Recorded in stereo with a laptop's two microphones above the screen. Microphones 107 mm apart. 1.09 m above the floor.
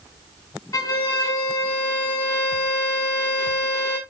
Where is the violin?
30° left (ahead or behind), 1.8 m.